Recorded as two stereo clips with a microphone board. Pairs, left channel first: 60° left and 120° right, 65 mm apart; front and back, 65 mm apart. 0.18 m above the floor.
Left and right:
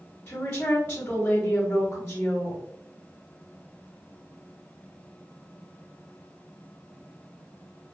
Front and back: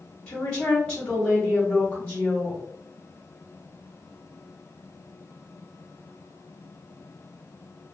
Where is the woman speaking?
70° left, 1.6 m.